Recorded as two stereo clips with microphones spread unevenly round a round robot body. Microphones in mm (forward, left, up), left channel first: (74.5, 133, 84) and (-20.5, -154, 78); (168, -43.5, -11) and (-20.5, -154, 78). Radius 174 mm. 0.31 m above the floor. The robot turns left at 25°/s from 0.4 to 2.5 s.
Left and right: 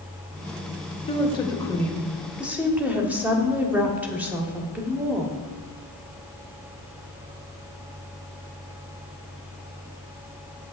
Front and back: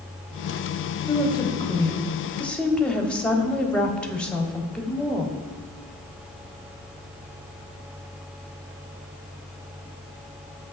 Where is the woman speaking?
10° left, 1.4 m; by 5.4 s 25° right, 1.4 m.